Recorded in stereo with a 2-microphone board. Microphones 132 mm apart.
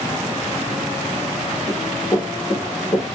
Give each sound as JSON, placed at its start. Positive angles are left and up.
{"t": 1.7, "sound": "running footsteps", "side_deg": -5, "distance_m": 1.4}